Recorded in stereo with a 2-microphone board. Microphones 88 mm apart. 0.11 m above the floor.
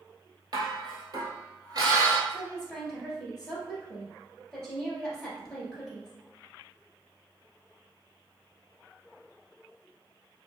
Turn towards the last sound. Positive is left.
turn(degrees=5)  # may be behind; listen again after turning